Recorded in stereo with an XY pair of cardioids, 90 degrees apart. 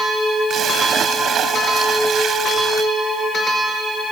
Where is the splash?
65° right.